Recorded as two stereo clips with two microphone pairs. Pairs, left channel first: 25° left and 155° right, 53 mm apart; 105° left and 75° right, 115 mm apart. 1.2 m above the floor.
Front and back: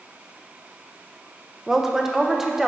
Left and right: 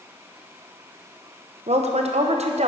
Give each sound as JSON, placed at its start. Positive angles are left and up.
{"t": 1.7, "sound": "a woman speaking", "azimuth_deg": -70, "distance_m": 0.7}